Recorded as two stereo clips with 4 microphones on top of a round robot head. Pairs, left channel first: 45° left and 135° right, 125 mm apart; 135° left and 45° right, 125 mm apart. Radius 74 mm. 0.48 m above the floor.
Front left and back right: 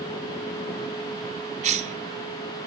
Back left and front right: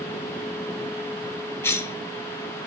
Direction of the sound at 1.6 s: 155° right.